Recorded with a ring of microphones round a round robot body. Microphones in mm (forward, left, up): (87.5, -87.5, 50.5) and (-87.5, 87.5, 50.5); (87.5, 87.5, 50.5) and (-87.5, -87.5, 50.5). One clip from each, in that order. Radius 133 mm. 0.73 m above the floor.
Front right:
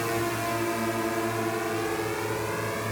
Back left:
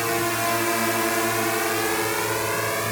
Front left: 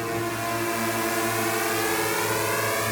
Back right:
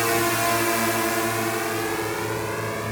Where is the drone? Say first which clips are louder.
Back left 5 dB, back right 6 dB; 175° right; by 2.9 s 85° left.